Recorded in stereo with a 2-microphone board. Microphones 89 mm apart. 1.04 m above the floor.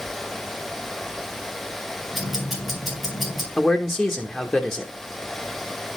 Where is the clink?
No clink in this recording.